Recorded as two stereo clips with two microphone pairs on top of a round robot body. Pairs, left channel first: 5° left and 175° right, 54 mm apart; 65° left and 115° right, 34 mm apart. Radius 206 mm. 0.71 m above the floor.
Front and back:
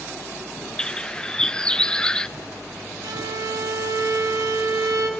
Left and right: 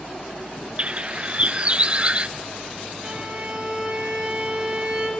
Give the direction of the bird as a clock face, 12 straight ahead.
3 o'clock.